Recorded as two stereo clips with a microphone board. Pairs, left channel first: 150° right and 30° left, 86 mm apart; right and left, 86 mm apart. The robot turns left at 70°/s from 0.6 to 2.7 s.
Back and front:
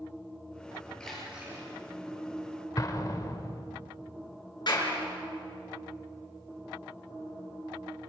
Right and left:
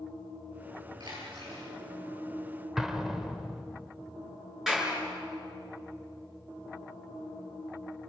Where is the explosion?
175° left, 1.8 m.